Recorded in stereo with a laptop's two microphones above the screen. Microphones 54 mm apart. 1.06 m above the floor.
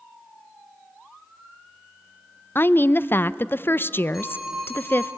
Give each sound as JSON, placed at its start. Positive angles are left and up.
{"t": 2.5, "sound": "a woman speaking", "side_deg": 40, "distance_m": 0.6}
{"t": 4.1, "sound": "a phone ringing", "side_deg": -10, "distance_m": 9.5}